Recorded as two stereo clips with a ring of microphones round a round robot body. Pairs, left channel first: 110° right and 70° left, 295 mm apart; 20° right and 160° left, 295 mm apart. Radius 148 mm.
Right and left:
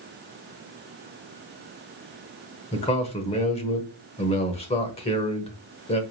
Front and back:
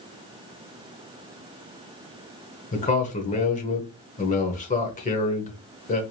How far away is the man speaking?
About 0.9 m.